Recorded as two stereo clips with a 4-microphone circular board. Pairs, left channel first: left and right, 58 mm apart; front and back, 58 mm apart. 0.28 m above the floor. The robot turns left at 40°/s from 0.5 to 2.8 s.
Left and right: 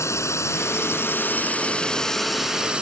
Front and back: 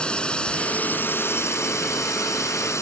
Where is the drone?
70° left; by 2.8 s 20° right.